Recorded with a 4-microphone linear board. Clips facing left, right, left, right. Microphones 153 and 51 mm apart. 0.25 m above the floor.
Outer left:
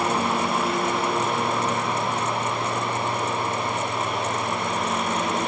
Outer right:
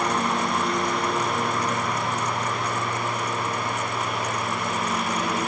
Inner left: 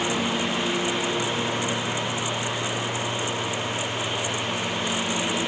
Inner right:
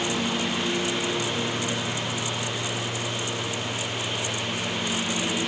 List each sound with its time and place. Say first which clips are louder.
0.0 s a lawn mower: outer left 1 dB, inner left 2 dB; 5° left (ahead or behind); by 5.5 s centre (ahead or behind)